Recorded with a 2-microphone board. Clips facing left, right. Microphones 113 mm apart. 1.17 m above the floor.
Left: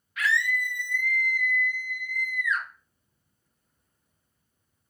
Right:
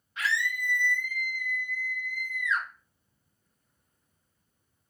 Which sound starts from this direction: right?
A scream, at 0.2 s.